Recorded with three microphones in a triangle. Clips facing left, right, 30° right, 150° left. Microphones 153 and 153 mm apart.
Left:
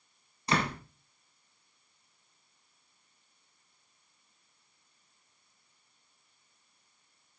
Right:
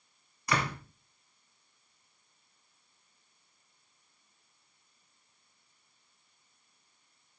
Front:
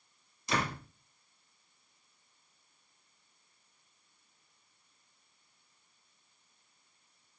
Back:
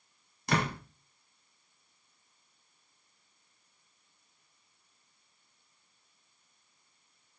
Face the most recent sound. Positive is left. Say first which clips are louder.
# left 2 dB, back 3 dB
turn(degrees=150)